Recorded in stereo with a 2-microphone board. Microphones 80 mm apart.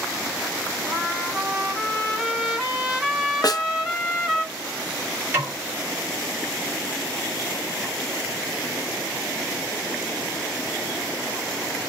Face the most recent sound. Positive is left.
turn(degrees=-25)  # may be behind; listen again after turning